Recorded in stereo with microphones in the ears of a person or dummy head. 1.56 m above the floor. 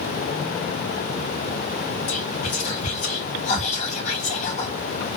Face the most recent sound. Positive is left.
turn(degrees=40)  # may be behind; listen again after turning